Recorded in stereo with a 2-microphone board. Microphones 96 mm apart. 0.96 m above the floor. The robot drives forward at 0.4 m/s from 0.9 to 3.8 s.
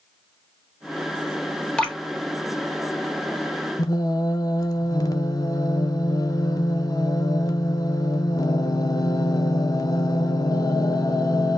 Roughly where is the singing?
Left.